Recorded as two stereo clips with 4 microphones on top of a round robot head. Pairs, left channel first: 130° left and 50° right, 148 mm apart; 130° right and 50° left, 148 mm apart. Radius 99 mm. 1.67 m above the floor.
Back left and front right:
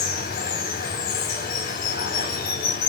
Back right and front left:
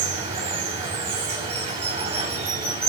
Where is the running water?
100° left, 4 m.